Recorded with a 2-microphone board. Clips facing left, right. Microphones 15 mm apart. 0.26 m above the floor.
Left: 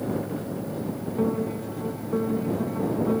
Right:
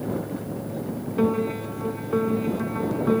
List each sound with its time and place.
1.2 s a piano: 65° right (ahead or behind)